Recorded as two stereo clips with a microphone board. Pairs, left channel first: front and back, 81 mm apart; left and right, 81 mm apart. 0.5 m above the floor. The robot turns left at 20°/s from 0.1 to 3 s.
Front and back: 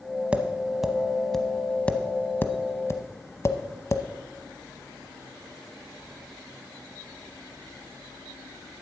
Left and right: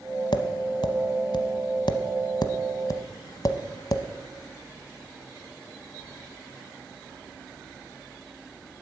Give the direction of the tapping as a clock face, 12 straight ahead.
9 o'clock.